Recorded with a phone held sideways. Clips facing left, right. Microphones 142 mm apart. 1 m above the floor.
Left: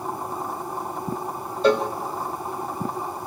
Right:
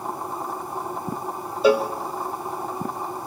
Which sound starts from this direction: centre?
A cowbell, at 1.6 s.